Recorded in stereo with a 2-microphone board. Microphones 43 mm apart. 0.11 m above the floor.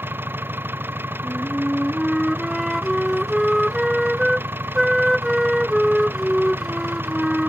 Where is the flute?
5° right (ahead or behind).